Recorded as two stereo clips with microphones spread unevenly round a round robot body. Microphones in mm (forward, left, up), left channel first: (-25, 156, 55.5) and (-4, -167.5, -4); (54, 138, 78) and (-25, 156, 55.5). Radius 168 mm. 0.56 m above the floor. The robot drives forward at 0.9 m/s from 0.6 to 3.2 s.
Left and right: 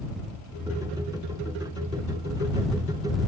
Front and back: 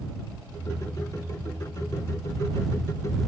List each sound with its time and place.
Only background noise.